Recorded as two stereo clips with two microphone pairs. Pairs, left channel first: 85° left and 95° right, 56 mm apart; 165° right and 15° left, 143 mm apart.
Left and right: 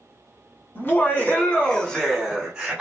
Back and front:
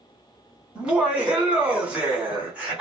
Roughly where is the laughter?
Left.